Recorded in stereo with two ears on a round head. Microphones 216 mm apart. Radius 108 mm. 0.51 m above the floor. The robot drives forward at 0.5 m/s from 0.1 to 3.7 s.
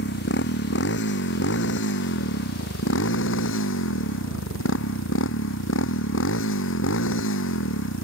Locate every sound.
0.0 s a motorcycle: 45° left (ahead or behind); by 8.0 s 50° left (ahead or behind)